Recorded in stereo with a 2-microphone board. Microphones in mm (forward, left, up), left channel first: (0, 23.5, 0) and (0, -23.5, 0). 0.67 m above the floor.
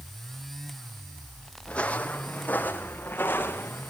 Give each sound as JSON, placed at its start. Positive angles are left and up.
{"t": 1.7, "sound": "footsteps", "side_deg": 25, "distance_m": 1.6}